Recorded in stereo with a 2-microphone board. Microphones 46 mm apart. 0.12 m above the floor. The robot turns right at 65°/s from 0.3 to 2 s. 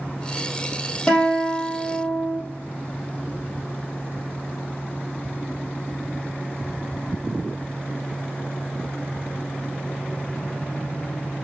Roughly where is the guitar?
Behind.